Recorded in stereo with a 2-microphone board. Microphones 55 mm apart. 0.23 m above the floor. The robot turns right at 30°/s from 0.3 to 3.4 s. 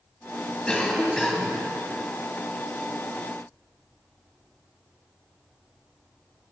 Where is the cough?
20° left (ahead or behind), 1.3 m; by 1.6 s centre (ahead or behind), 1.3 m.